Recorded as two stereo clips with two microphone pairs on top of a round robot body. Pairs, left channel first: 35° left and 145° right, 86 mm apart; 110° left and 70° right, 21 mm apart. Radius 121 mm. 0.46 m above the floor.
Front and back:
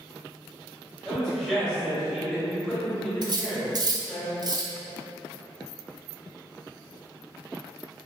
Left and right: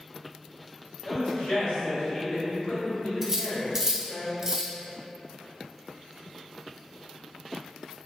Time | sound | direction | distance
1.1 | a man speaking | 110° left | 1.5 m
3.2 | cutlery clinking | 125° right | 0.5 m